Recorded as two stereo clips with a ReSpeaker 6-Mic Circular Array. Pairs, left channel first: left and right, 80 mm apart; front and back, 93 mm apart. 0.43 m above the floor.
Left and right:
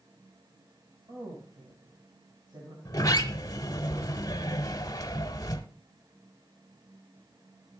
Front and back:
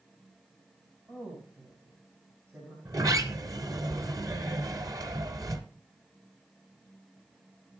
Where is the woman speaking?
105° right, 3.5 m; by 2.8 s 120° right, 3.5 m.